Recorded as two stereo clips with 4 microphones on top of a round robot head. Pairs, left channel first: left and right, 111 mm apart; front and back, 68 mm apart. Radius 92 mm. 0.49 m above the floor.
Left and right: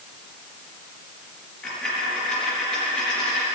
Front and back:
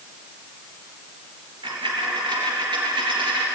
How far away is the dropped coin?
About 4 m.